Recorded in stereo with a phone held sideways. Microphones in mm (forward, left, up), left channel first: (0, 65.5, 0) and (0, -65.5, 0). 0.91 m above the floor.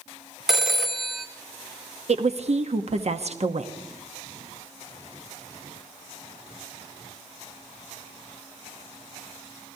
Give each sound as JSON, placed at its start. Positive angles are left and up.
{"t": 0.5, "sound": "a phone ringing", "side_deg": 0, "distance_m": 0.6}
{"t": 2.1, "sound": "a woman speaking", "side_deg": -55, "distance_m": 0.9}